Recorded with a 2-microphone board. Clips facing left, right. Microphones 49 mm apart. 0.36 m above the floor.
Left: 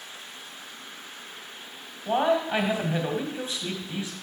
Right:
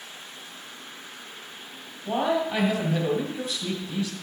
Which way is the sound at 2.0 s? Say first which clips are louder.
Left 1 dB; 25° left (ahead or behind).